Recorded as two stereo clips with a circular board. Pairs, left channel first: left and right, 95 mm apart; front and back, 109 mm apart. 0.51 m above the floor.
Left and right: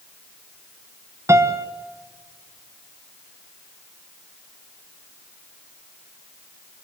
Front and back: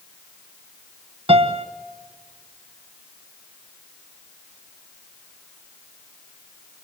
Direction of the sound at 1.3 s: 150° right.